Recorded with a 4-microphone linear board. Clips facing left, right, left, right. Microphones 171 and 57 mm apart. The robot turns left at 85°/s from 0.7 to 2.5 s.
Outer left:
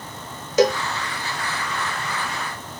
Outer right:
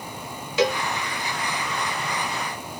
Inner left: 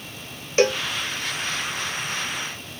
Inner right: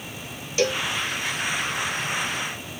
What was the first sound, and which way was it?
A cowbell, 45° left (ahead or behind).